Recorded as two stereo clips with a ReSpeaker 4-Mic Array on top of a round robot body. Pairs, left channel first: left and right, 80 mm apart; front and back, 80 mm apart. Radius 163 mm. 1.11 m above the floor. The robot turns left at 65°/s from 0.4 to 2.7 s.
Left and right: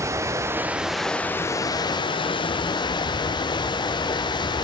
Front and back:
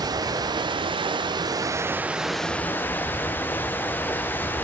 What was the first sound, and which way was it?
Running water, 145° right.